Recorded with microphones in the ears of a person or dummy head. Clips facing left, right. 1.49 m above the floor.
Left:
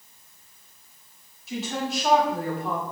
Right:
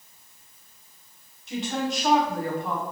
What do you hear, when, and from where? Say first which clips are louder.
1.5 s a woman speaking: right 1 dB; centre (ahead or behind), 0.9 m